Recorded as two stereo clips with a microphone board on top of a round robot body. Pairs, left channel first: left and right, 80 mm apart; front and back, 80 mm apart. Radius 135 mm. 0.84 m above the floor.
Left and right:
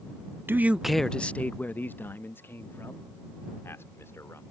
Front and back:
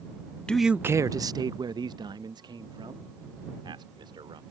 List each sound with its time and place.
0.5 s a man speaking: 65° right; by 4.4 s 150° left